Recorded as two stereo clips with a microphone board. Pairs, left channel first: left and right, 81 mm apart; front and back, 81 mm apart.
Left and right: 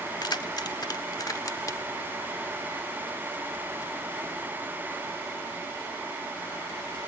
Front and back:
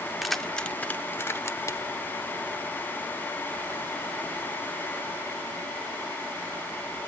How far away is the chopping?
I don't hear chopping.